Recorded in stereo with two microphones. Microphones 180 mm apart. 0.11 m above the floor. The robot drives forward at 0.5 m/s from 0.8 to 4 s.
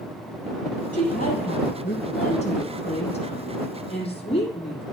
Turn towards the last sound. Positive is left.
turn(degrees=35)  # may be behind; listen again after turning